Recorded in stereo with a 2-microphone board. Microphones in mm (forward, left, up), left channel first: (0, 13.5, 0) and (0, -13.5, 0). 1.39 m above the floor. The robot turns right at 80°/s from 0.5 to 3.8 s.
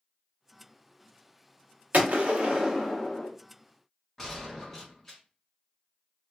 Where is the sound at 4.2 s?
15° left (ahead or behind), 1.3 m.